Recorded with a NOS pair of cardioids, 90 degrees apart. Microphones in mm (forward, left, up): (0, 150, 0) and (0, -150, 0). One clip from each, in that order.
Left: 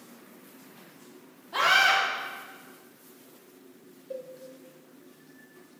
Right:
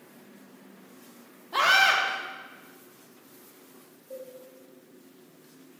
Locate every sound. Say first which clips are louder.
1.5 s a scream: right 1 dB; 20° right, 2 m
4.1 s a cowbell: left 3 dB; 40° left, 2.5 m